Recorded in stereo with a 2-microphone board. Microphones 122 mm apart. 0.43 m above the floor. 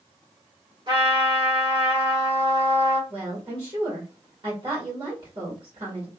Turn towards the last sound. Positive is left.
turn(degrees=-40)  # may be behind; listen again after turning